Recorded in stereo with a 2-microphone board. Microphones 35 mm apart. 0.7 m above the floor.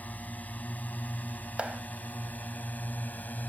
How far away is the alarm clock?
No alarm clock in this recording.